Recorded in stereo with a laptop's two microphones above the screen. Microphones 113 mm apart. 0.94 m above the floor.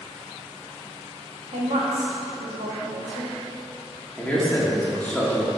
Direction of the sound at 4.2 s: 15° left (ahead or behind).